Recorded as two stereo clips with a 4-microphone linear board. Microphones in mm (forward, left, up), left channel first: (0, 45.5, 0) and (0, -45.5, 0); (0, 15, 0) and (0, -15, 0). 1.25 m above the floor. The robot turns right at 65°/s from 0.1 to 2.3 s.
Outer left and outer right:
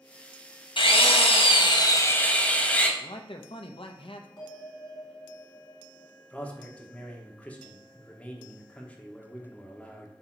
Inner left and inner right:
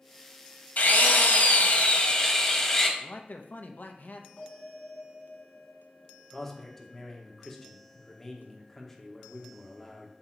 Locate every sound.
0.8 s a drill: 65° left, 1.1 m; by 2.9 s 165° left, 1.1 m
3.0 s a man speaking: 70° left (ahead or behind), 0.7 m
4.4 s a bell: 55° left (ahead or behind), 4 m
6.3 s a man speaking: 15° left (ahead or behind), 1.1 m